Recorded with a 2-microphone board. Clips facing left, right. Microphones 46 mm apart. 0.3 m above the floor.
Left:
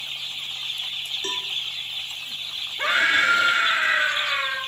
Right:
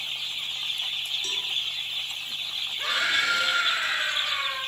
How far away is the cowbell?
About 1.5 m.